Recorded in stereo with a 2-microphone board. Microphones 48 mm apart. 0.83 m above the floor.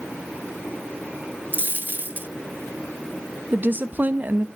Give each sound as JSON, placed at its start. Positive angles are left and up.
{"t": 1.5, "sound": "a dropped coin", "side_deg": -45, "distance_m": 1.0}
{"t": 3.5, "sound": "a woman speaking", "side_deg": -40, "distance_m": 0.8}